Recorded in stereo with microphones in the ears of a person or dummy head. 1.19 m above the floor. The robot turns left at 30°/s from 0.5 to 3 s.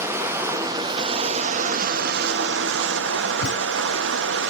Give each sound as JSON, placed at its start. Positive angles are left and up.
{"t": 0.0, "sound": "running water", "azimuth_deg": -15, "distance_m": 0.8}
{"t": 3.4, "sound": "a thud", "side_deg": 80, "distance_m": 3.0}